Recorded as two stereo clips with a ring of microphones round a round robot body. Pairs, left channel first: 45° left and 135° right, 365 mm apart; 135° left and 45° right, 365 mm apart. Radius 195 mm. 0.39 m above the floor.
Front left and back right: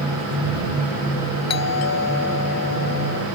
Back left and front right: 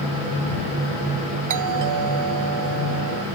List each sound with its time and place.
1.5 s a doorbell: 5° right